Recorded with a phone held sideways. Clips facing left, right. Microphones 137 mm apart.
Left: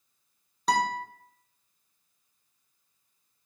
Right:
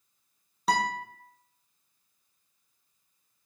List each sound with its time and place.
0.7 s a guitar: 5° right (ahead or behind), 0.7 m